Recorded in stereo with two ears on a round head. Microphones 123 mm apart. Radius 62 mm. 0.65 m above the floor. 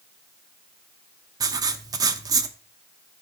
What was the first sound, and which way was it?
Writing, 25° right (ahead or behind).